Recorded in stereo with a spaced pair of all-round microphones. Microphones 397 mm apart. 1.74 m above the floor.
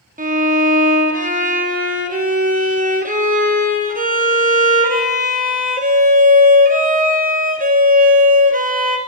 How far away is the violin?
About 0.9 m.